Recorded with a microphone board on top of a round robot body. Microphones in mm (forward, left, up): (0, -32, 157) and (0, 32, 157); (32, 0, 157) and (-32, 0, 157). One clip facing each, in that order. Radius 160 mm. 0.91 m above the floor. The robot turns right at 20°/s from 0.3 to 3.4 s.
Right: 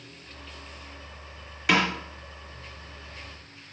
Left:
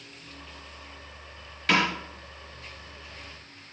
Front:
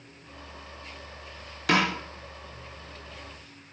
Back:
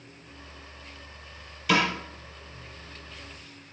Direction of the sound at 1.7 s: 10° right.